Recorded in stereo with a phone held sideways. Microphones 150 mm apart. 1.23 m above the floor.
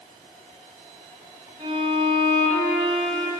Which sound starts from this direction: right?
A violin, at 1.6 s.